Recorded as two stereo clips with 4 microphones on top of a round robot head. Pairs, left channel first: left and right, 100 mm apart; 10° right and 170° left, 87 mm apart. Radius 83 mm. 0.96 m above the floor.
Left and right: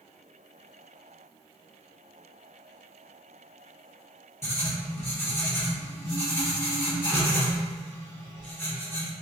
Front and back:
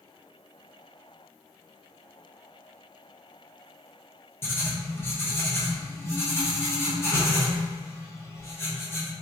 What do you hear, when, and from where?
4.4 s writing: 40° left, 1.1 m